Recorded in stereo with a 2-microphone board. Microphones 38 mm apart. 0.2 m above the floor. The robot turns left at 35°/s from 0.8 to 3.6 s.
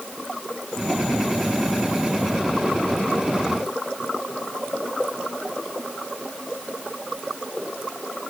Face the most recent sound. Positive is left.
No sound to turn to.